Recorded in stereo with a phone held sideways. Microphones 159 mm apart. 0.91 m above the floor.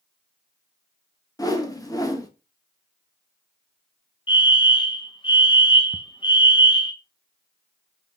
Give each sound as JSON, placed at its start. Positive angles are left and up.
{"t": 1.4, "sound": "a whoosh", "side_deg": 20, "distance_m": 1.3}
{"t": 4.3, "sound": "a fire alarm", "side_deg": 30, "distance_m": 1.4}
{"t": 5.9, "sound": "ticking", "side_deg": -5, "distance_m": 0.7}